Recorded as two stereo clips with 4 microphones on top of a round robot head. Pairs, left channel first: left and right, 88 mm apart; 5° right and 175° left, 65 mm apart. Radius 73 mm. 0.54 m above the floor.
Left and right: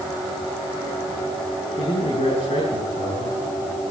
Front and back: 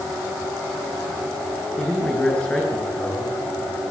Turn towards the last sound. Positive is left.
turn(degrees=70)